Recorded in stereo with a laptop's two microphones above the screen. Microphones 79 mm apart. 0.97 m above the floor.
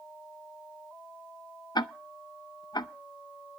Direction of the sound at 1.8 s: 60° left (ahead or behind).